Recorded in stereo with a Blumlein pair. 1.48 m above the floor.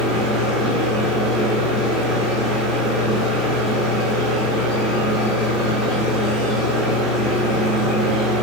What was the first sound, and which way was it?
A machine running, 15° right.